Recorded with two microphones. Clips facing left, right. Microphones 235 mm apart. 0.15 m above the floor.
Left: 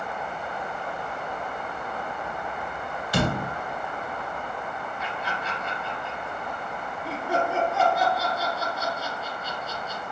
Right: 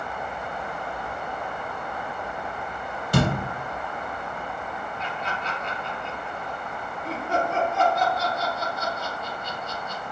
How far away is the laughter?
About 1.6 m.